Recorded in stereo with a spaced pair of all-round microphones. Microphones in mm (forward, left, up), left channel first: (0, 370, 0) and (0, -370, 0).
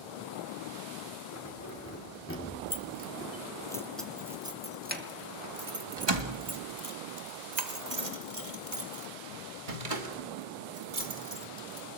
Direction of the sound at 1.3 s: 20° left (ahead or behind).